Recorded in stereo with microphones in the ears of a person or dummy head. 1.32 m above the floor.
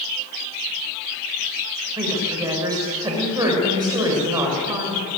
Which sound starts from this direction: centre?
A woman speaking, at 2.0 s.